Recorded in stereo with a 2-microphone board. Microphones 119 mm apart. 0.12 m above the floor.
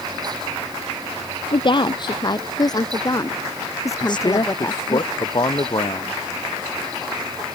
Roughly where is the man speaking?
Left.